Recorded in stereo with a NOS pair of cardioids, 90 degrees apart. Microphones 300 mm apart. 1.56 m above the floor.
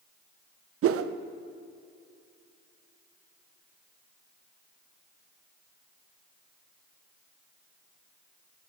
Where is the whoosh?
50° right, 0.5 m.